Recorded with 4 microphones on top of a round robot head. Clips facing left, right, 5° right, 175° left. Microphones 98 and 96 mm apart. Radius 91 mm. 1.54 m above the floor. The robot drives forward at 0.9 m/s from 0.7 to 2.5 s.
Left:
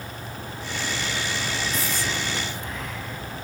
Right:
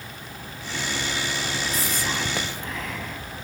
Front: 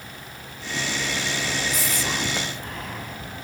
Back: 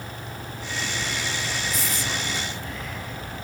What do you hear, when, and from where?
1.7 s whispering: 25° right, 1.1 m; by 3.2 s 60° right, 0.6 m